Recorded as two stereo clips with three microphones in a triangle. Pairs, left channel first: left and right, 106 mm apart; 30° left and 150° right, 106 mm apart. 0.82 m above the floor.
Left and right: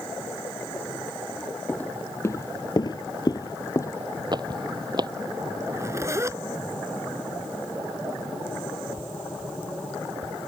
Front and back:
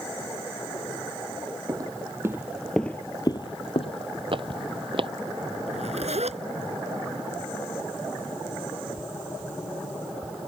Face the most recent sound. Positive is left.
turn(degrees=-155)